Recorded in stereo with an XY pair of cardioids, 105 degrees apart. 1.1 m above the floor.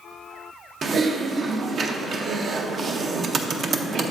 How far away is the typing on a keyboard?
About 0.7 m.